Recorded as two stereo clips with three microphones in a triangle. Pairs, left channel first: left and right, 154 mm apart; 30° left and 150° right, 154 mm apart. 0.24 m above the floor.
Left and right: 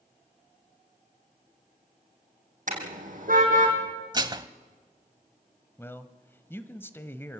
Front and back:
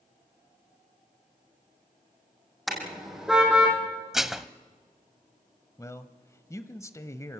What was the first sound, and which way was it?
A car horn, 60° right.